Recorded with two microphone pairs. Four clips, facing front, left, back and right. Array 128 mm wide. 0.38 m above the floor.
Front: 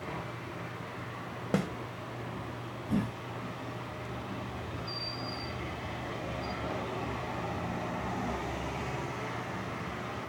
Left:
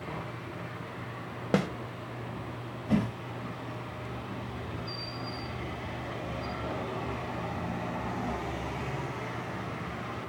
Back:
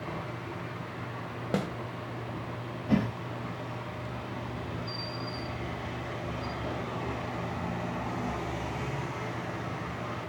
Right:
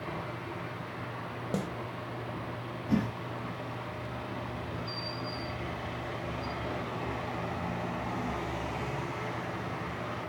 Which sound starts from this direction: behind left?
A whoosh, at 2.9 s.